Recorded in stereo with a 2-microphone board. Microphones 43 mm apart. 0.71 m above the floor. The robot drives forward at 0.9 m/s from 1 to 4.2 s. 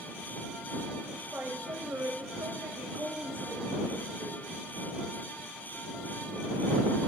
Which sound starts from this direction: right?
A woman speaking, at 1.1 s.